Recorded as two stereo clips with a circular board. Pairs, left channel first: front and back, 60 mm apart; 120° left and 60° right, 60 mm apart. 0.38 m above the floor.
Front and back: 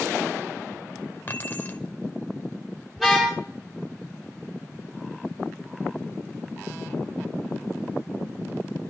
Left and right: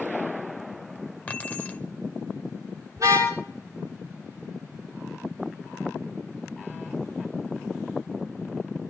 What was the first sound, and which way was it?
Keys jangling, 55° left.